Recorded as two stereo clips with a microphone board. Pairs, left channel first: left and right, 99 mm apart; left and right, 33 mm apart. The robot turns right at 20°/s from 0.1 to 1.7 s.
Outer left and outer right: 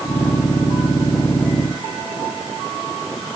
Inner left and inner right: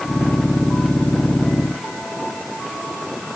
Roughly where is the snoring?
No snoring in this recording.